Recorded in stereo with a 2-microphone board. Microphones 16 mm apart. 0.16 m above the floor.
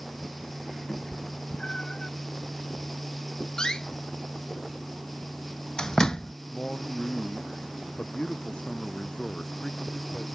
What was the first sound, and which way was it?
A cat meowing, 55° left (ahead or behind).